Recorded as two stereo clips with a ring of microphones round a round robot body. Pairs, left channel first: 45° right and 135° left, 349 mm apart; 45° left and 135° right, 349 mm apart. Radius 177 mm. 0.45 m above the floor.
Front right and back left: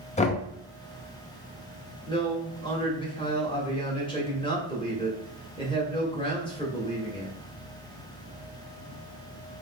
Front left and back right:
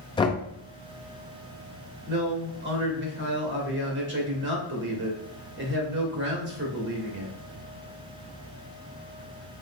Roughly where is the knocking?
Ahead.